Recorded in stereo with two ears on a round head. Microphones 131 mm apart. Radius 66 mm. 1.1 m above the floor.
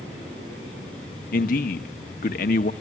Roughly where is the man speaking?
Left.